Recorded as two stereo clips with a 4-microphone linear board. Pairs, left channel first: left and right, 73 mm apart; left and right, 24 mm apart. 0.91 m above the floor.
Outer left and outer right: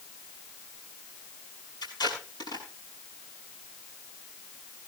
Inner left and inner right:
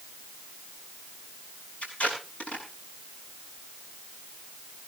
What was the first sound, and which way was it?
Tape being pulled, 70° left (ahead or behind).